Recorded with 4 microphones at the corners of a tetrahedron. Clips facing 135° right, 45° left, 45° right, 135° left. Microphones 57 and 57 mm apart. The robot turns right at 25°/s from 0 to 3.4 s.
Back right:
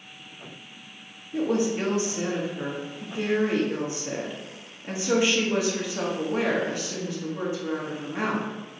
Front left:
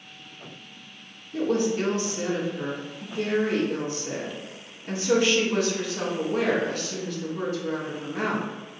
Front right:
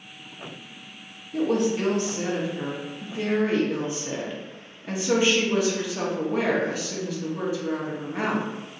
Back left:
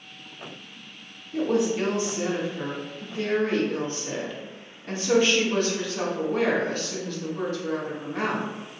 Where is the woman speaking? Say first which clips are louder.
Even, even; 150° right, 0.8 m; by 8.5 s 100° right, 0.8 m.